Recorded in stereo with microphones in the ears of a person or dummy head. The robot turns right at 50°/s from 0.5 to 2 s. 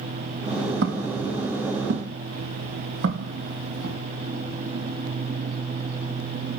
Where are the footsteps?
65° right (ahead or behind), 3 m; by 4.0 s 75° right (ahead or behind), 5.5 m.